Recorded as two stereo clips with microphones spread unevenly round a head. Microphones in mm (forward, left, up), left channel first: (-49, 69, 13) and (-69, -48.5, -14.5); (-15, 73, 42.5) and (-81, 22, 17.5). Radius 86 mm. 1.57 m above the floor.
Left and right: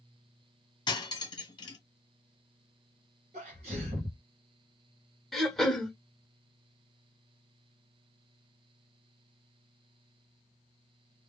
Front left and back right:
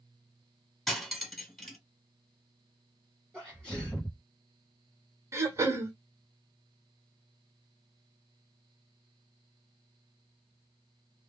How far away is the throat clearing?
About 0.9 m.